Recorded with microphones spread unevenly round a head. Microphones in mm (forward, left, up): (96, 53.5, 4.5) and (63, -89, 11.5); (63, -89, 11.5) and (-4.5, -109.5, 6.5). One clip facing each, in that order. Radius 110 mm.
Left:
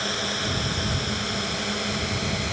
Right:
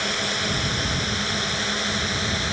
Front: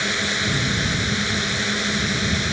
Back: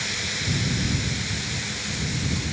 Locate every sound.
0.0 s a drone: 15° right; by 2.5 s 5° right